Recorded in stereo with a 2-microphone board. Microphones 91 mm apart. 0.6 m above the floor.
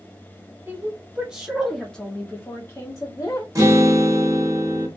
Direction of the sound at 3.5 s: 40° right (ahead or behind).